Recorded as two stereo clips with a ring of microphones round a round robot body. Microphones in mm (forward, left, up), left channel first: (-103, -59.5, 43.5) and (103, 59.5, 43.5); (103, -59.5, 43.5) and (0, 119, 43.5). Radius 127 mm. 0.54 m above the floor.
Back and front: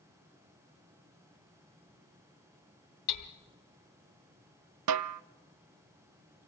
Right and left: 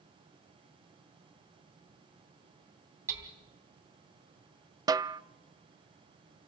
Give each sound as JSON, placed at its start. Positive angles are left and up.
{"t": 3.1, "sound": "hammering", "azimuth_deg": -160, "distance_m": 2.0}
{"t": 4.9, "sound": "a snare drum", "azimuth_deg": 45, "distance_m": 0.5}